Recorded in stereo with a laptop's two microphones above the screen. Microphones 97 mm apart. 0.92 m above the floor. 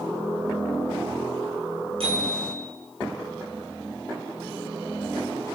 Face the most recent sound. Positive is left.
turn(degrees=-70)  # may be behind; listen again after turning